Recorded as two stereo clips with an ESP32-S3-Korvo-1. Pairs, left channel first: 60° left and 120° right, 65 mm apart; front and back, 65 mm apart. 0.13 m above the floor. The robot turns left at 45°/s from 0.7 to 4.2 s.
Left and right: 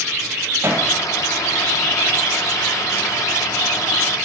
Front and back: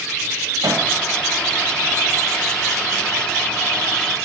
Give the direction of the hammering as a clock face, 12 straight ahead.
6 o'clock.